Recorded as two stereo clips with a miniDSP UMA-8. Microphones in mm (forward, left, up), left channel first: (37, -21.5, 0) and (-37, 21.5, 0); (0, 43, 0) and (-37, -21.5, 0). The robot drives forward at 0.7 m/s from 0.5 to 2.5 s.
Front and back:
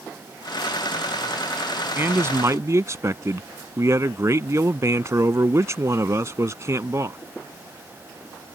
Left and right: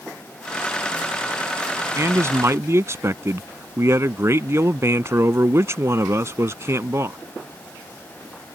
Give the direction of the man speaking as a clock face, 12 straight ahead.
5 o'clock.